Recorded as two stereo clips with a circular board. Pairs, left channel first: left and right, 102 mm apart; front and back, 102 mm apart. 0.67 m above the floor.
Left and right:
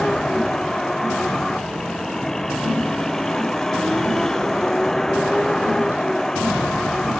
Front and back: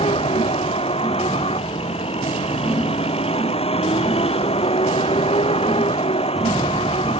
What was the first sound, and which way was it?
A vehicle, 5° left.